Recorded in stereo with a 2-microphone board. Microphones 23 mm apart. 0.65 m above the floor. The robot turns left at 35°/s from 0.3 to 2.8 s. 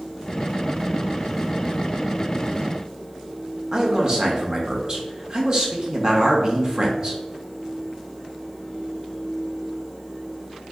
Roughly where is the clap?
No clap in this recording.